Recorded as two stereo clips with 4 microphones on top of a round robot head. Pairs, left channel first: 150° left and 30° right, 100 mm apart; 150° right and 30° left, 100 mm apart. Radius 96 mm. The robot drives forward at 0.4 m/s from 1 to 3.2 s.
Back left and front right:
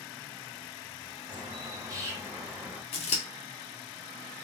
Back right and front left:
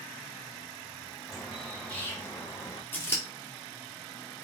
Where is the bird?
60° right, 1.1 m; by 2.8 s 105° right, 1.0 m.